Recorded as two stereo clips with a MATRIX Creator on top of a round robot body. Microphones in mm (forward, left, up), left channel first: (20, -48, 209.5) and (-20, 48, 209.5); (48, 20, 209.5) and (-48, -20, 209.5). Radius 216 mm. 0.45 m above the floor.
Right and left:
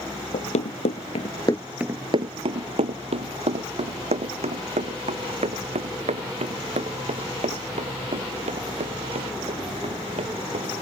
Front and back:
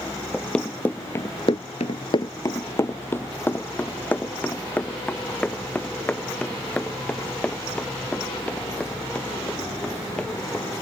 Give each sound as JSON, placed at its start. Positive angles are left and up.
{"t": 0.3, "sound": "running footsteps", "azimuth_deg": -60}